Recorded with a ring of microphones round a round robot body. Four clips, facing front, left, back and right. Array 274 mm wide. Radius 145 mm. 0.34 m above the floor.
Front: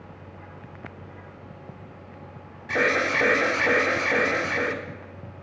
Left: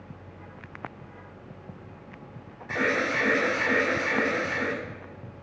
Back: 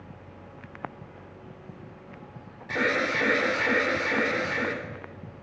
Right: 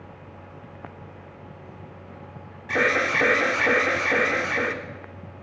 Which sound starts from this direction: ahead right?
An alarm, at 2.7 s.